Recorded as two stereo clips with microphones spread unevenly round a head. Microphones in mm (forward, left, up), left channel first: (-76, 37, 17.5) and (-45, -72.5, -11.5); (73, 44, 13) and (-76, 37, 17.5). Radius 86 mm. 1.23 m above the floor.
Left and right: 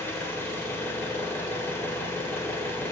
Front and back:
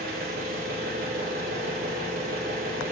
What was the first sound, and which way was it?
An engine running, 170° left.